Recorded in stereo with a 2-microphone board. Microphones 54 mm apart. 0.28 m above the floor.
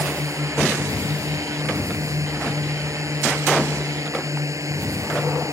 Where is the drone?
75° right (ahead or behind).